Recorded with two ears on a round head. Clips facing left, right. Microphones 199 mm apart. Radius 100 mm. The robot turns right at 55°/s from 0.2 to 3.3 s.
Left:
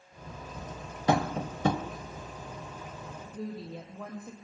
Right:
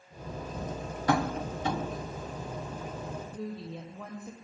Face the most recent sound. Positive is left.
turn(degrees=5)  # may be behind; listen again after turning